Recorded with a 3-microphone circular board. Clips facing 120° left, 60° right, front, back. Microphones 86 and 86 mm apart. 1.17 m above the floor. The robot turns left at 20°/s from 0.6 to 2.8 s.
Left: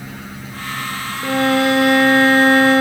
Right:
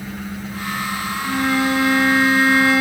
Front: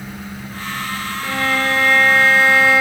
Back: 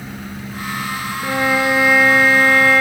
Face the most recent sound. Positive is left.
turn(degrees=80)